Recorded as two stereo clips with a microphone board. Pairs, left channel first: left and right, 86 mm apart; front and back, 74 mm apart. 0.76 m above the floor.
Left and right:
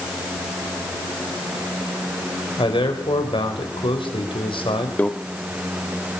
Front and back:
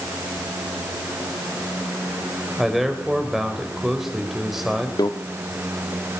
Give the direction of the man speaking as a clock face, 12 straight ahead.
9 o'clock.